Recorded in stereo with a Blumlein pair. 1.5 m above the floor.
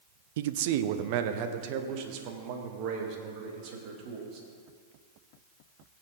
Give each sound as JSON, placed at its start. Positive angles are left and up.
{"t": 0.4, "sound": "a man speaking", "azimuth_deg": -55, "distance_m": 0.6}